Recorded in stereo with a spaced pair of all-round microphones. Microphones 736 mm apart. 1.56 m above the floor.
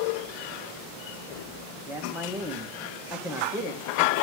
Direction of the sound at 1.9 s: 5° right (ahead or behind).